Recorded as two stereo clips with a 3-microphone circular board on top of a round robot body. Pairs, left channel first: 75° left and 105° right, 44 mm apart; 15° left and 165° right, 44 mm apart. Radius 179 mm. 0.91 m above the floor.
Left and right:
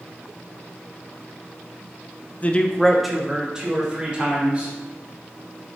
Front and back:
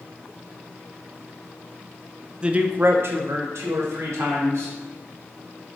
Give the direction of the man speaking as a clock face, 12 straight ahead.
8 o'clock.